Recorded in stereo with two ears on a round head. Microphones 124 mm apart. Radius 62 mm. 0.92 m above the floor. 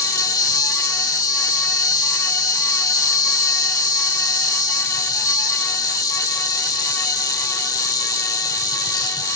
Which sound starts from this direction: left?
An insect, at 0.0 s.